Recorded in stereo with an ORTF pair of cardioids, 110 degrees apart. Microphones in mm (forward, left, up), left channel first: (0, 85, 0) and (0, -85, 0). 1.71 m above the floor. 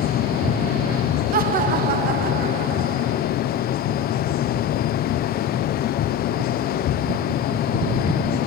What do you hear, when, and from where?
0.0 s a fan: 65° left, 1.5 m
1.3 s laughter: 60° right, 1.8 m